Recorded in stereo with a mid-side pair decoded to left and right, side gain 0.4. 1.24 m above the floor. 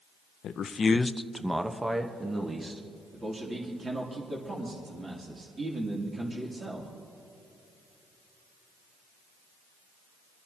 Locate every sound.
0.4 s a man speaking: 70° left, 0.7 m; by 2.8 s 30° right, 1.9 m
3.1 s a man speaking: 30° right, 3 m